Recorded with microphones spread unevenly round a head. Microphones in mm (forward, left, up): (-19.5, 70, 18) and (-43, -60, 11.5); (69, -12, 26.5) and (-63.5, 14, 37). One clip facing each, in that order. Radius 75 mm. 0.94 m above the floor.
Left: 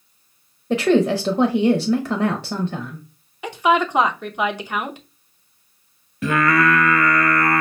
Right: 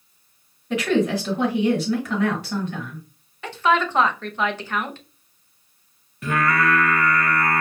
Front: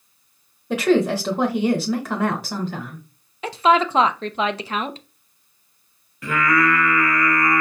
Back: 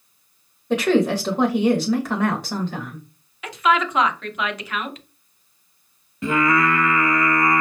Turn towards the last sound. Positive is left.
turn(degrees=100)